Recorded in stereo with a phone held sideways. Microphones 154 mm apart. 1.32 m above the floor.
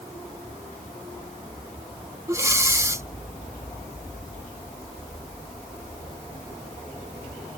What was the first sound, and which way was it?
Breathing, 20° right (ahead or behind).